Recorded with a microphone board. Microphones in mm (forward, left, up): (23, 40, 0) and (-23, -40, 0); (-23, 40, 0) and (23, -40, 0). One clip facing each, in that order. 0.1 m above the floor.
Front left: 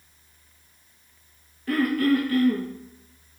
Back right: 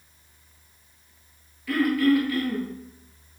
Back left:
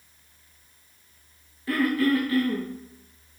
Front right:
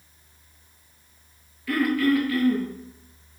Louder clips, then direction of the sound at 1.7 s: Back right 1 dB, front right 1 dB; 80° left.